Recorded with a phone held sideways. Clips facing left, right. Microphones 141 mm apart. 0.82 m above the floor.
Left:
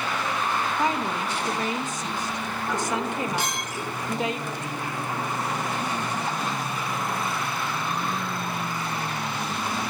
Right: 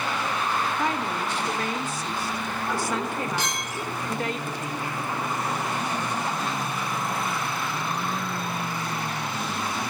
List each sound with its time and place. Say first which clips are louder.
0.8 s a woman speaking: left 1 dB; 20° left (ahead or behind), 1.1 m
3.4 s a clink: even; 60° left (ahead or behind), 6.5 m